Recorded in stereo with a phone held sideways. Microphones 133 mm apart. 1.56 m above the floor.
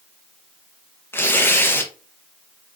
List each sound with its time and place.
1.1 s tearing paper: 15° left (ahead or behind), 0.8 m